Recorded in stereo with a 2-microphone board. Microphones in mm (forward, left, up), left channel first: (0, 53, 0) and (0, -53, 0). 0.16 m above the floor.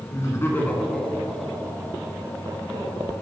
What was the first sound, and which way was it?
Laughter, 35° left (ahead or behind).